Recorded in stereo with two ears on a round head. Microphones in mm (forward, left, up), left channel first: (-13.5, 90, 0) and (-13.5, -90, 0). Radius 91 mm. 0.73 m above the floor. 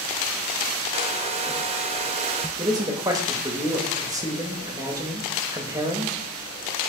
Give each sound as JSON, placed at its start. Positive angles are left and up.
{"t": 0.9, "sound": "a hair dryer", "side_deg": -30, "distance_m": 0.6}
{"t": 2.6, "sound": "a man speaking", "side_deg": -15, "distance_m": 0.9}